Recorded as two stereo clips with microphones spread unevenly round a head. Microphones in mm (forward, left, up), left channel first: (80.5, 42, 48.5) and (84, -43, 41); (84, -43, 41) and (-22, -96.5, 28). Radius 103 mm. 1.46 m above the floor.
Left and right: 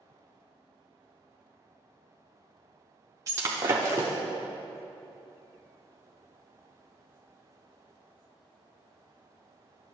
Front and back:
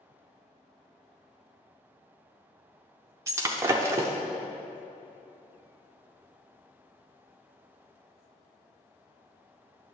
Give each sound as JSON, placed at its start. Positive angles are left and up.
{"t": 3.3, "sound": "breaking glass", "azimuth_deg": -105, "distance_m": 0.5}